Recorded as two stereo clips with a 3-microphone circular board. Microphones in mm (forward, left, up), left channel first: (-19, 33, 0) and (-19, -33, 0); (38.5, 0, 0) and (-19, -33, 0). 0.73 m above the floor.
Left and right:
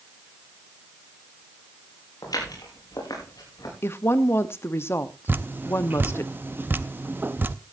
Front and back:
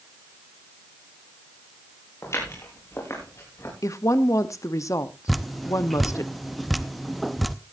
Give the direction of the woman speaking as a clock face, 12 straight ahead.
10 o'clock.